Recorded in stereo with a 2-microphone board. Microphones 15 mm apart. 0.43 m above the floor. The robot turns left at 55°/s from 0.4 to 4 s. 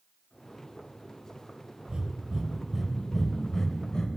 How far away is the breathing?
About 0.7 m.